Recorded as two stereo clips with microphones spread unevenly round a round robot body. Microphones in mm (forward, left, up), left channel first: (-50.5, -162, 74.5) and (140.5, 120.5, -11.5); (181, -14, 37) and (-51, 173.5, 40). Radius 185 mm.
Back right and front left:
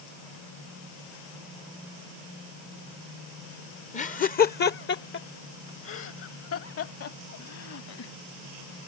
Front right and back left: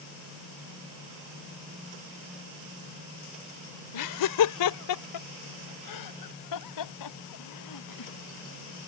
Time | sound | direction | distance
3.9 | laughter | 50° right | ?